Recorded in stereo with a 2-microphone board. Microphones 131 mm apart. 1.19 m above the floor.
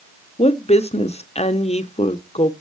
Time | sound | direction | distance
0.4 | a woman speaking | 55° left (ahead or behind) | 0.8 m